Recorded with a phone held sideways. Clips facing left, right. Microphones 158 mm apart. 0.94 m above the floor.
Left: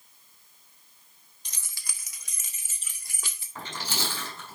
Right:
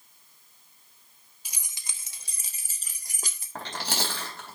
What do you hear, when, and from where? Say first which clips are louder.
1.4 s keys jangling: even; 5° right (ahead or behind), 0.7 m; by 3.5 s 40° right (ahead or behind), 2 m
3.5 s chewing: right 2 dB; 70° right (ahead or behind), 4.5 m